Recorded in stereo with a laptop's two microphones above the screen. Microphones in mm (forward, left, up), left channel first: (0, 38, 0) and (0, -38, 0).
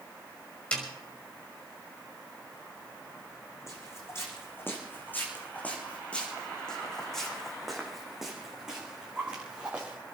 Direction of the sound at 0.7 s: 15° left (ahead or behind).